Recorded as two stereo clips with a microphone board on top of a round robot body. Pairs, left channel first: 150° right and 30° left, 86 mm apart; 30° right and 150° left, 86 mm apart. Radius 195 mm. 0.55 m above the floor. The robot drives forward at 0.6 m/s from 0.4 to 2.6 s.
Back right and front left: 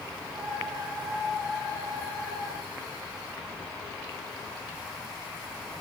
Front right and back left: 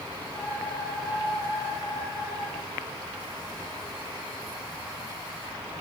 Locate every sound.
Only background noise.